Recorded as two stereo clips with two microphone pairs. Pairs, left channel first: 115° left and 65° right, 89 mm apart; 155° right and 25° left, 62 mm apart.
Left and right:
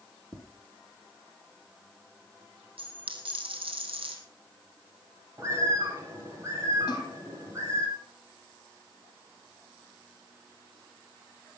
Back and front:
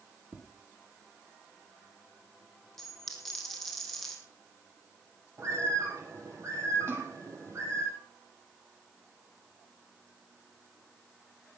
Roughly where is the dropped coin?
Right.